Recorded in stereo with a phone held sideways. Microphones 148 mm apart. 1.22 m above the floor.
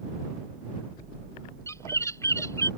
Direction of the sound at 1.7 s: 20° left (ahead or behind).